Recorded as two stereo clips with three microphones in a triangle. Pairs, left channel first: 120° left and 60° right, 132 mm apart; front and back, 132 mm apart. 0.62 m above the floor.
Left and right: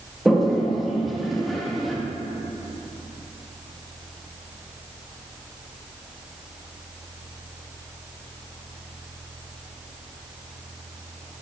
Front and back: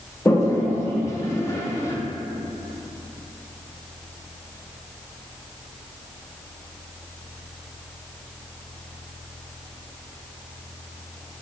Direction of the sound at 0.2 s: 30° left.